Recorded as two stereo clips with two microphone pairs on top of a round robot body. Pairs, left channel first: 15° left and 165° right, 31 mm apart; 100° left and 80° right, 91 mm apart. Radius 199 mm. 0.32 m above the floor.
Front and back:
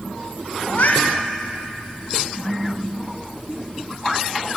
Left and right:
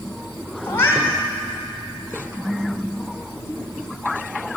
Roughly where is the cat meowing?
Ahead left.